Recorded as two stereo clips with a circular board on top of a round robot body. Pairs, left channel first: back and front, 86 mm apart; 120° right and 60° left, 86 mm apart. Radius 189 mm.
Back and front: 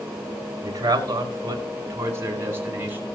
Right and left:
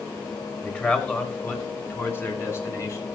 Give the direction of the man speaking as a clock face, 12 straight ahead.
2 o'clock.